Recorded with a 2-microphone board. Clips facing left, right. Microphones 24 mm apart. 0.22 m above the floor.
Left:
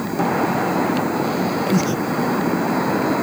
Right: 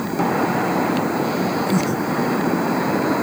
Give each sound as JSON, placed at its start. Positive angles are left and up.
{"t": 1.7, "sound": "breathing", "side_deg": 45}